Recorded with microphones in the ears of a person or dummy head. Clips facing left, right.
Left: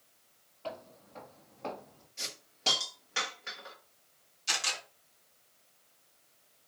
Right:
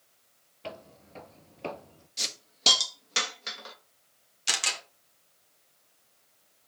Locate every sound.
0.6 s footsteps: 25° right (ahead or behind), 1.3 m; by 2.1 s 30° right (ahead or behind), 1.4 m
2.2 s a hiss: 50° right (ahead or behind), 1.3 m
4.5 s a camera shutter: 70° right (ahead or behind), 2.5 m